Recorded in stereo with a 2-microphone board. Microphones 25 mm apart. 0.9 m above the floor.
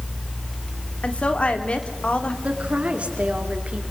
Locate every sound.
1.0 s a woman speaking: 55° left (ahead or behind), 2 m
2.4 s a woman speaking: 55° right (ahead or behind), 2.5 m